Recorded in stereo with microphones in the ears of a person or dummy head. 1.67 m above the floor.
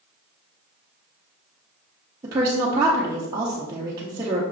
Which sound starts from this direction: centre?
A woman speaking, at 2.2 s.